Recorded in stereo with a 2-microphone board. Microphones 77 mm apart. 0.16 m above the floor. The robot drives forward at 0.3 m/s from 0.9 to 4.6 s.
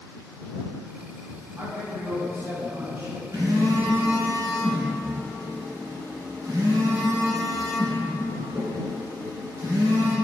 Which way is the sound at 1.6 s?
30° right (ahead or behind).